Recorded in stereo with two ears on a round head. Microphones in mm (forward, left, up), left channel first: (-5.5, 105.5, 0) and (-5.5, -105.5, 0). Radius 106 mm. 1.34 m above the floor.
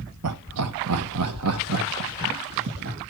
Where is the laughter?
75° right (ahead or behind), 0.8 m; by 3.0 s 65° right (ahead or behind), 2 m.